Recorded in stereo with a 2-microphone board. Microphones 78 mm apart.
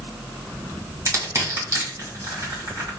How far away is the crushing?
About 1.8 m.